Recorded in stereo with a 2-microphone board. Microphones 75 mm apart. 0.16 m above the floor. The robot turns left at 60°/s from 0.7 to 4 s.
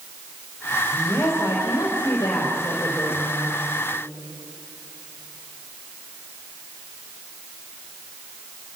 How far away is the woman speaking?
About 5 m.